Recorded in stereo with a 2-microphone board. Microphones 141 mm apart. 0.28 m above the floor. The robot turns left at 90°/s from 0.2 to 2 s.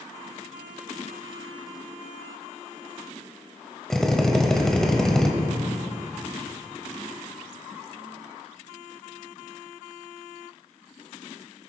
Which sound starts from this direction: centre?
A drill, at 3.9 s.